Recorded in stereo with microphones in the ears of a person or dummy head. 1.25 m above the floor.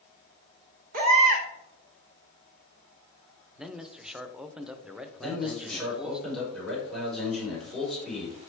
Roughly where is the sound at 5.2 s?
Centre.